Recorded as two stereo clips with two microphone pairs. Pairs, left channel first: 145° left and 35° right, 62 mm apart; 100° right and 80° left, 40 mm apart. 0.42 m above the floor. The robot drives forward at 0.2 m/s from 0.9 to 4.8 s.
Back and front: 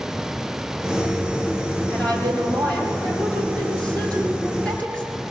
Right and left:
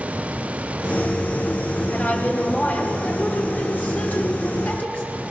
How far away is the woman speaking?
About 7 m.